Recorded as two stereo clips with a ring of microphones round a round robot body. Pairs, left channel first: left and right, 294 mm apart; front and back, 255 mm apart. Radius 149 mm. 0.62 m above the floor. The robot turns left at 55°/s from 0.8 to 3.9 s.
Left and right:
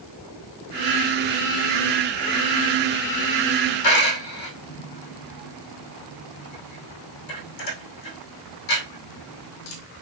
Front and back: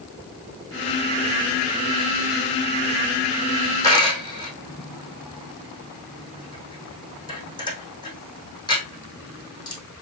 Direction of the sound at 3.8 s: 75° left.